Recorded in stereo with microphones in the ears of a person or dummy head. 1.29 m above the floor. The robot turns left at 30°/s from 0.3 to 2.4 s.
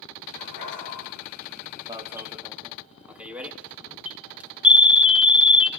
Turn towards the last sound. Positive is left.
turn(degrees=0)  # may be behind; listen again after turning